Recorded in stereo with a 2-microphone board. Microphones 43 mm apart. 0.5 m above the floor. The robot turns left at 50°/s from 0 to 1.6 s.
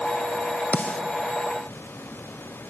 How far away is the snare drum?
About 1.9 m.